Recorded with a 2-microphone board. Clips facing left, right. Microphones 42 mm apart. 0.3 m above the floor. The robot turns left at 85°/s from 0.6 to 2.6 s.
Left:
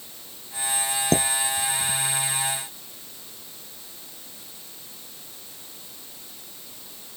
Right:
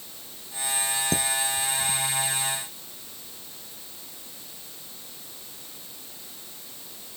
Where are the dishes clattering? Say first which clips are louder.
Left 6 dB; 50° left (ahead or behind); by 2.0 s 20° right (ahead or behind).